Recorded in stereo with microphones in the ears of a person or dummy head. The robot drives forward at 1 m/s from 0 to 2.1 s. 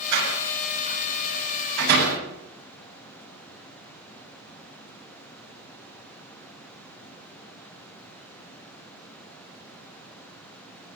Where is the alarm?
I don't hear an alarm.